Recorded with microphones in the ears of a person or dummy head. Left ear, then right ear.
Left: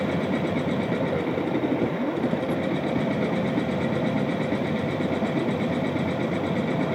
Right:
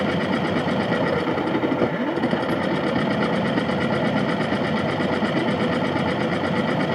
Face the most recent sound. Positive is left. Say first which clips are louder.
# right 3 dB
turn(degrees=-35)  # may be behind; listen again after turning